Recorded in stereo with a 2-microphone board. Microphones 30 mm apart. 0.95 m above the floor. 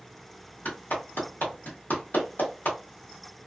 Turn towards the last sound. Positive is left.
turn(degrees=80)